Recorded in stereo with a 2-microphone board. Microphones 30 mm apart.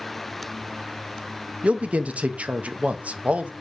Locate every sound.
1.6 s a man speaking: 50° right (ahead or behind), 0.5 m